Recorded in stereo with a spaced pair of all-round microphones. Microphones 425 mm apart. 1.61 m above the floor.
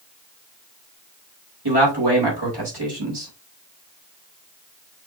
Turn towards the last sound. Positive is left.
turn(degrees=-65)  # may be behind; listen again after turning